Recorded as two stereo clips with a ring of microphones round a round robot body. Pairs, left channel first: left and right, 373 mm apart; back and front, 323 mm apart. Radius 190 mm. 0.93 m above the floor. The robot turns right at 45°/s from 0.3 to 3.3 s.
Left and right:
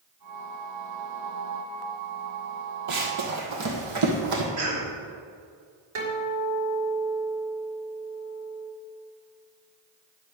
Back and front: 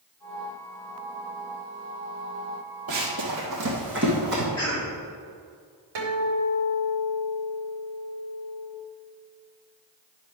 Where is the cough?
95° right, 3.5 m.